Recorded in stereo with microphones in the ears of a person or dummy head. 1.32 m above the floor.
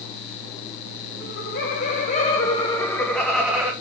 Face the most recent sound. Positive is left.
turn(degrees=-10)  # may be behind; listen again after turning